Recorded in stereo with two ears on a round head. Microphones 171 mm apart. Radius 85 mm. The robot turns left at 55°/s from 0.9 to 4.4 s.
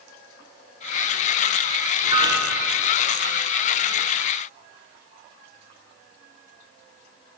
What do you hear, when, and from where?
2.0 s a piano: 150° right, 1.1 m; by 2.9 s 165° left, 1.1 m